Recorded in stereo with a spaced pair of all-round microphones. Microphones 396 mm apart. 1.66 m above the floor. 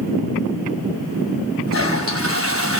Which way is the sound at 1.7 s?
35° right (ahead or behind).